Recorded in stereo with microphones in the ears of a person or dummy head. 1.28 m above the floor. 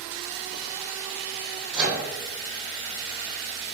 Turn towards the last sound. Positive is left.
turn(degrees=-5)  # may be behind; listen again after turning